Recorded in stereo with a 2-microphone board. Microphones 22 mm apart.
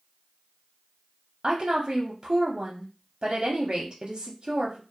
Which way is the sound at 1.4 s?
35° right (ahead or behind).